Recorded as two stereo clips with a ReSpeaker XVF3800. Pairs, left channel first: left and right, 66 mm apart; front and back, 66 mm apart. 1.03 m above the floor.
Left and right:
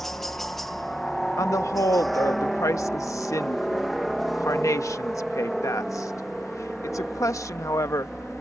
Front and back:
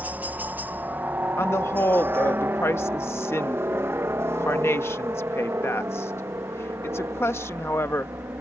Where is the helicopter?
170° left; by 8.4 s 175° right.